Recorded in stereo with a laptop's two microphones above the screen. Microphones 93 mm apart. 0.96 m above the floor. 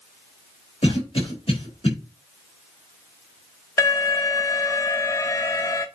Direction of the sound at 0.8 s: 75° left (ahead or behind).